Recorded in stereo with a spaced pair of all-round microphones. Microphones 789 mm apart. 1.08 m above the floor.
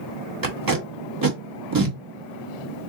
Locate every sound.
0.4 s tape being pulled: 30° right (ahead or behind), 1.1 m